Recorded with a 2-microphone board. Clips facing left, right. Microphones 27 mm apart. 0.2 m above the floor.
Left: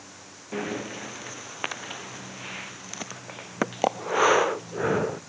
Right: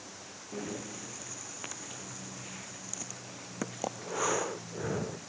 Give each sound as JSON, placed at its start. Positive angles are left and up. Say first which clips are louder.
{"t": 0.5, "sound": "breathing", "louder": "left 8 dB", "side_deg": 45}